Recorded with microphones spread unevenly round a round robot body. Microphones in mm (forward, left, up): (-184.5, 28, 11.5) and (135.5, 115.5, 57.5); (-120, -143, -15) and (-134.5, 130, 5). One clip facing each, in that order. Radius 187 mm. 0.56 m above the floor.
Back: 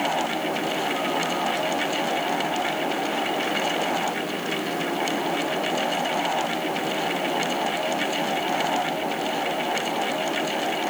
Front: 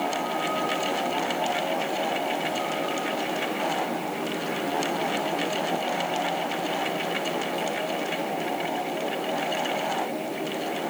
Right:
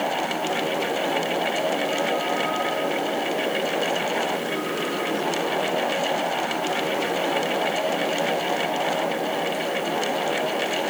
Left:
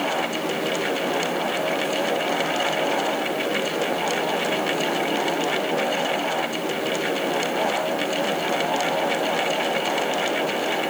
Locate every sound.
Only background noise.